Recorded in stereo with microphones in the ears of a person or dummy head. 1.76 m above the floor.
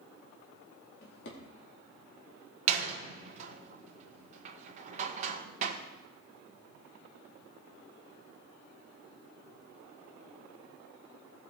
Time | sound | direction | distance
1.0 | a drawer | 65° left (ahead or behind) | 2.5 m
2.7 | a door slam | 35° right (ahead or behind) | 1.4 m